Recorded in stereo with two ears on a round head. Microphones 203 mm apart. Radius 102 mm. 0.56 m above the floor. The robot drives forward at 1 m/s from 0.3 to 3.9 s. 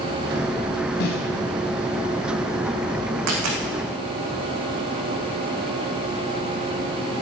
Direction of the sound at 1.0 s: 50° left (ahead or behind).